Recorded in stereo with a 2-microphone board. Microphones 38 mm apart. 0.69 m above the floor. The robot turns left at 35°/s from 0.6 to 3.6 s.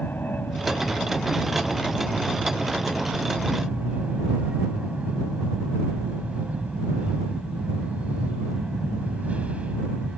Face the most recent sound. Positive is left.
turn(degrees=-35)